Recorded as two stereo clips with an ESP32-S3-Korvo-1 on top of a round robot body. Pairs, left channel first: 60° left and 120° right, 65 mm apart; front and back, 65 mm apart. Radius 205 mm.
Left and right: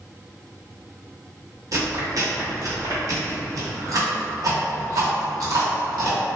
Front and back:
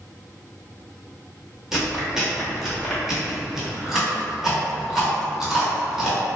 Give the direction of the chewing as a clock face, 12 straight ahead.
3 o'clock.